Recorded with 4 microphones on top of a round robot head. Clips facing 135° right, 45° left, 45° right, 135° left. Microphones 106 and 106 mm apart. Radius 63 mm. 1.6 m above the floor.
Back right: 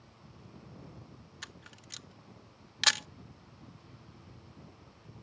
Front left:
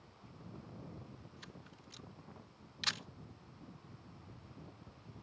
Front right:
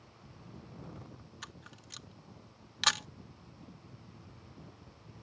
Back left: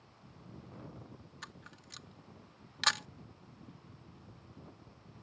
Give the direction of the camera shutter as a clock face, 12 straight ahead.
4 o'clock.